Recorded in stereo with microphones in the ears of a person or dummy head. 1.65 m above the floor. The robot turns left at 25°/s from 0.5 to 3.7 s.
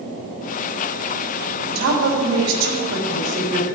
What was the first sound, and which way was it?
A woman speaking, 75° right.